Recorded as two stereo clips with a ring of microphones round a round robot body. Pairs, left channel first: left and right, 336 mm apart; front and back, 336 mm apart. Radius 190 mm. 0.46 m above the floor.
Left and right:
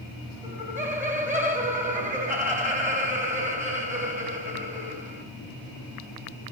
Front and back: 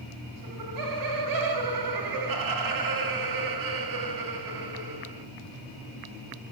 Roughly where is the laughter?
Behind.